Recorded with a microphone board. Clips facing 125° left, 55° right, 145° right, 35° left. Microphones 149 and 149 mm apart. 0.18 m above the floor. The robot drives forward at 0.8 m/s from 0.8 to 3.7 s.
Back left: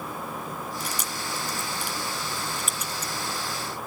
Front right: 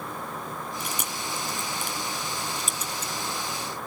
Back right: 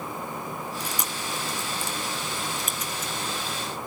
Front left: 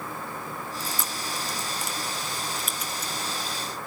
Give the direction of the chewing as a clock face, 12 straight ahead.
2 o'clock.